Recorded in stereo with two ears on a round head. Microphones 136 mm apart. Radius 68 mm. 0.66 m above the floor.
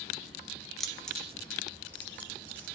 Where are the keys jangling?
Centre (ahead or behind), 0.6 m; by 2.8 s 10° left (ahead or behind), 1.5 m.